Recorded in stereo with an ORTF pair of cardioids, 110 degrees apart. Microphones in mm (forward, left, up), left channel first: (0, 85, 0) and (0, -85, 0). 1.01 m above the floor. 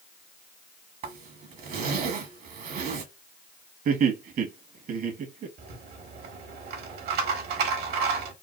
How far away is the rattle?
About 1.3 m.